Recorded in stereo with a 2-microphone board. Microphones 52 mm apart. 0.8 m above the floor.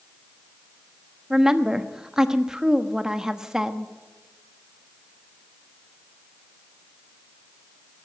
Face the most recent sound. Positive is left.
turn(degrees=-10)  # may be behind; listen again after turning